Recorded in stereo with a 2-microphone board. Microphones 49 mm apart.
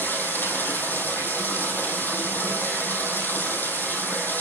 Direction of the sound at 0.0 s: 40° left (ahead or behind).